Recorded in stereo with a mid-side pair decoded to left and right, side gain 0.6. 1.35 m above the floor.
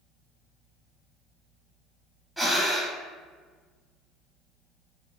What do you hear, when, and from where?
2.4 s breathing: 15° right, 1.0 m